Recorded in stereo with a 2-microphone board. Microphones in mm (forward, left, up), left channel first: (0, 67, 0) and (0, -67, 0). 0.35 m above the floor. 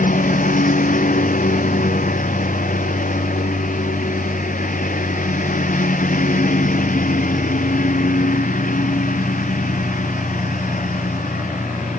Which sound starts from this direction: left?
A lawn mower, at 0.0 s.